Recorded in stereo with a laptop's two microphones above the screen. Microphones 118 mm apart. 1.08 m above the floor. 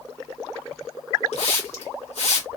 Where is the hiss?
70° left (ahead or behind), 1.4 m.